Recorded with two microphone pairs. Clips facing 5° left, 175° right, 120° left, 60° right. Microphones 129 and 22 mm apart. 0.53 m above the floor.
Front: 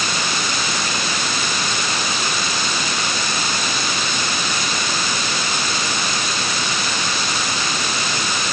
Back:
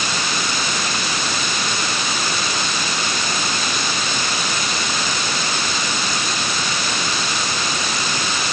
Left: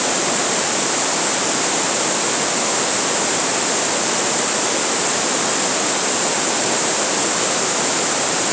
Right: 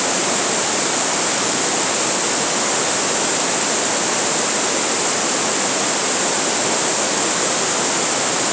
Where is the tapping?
No tapping in this recording.